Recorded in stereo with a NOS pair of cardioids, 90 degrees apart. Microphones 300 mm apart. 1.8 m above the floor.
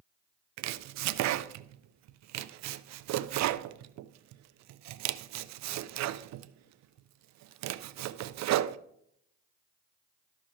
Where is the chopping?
65° right, 0.5 m.